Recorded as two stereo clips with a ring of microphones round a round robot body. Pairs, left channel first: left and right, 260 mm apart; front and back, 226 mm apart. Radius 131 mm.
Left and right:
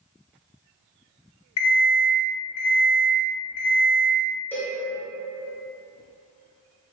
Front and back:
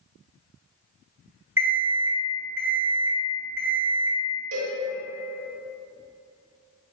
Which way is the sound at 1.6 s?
100° left.